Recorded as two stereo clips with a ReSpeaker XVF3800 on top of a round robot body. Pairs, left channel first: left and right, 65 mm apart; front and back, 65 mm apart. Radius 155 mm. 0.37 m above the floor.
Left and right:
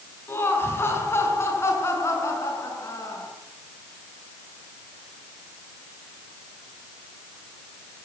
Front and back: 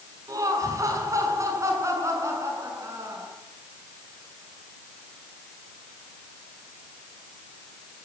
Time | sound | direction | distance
0.3 | laughter | 145° left | 6 m